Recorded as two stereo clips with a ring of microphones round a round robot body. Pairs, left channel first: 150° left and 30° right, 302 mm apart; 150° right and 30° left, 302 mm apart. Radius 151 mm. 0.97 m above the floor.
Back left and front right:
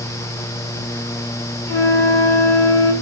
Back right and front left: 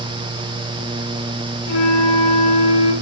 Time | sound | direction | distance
1.7 | a flute | 130° right | 1.1 m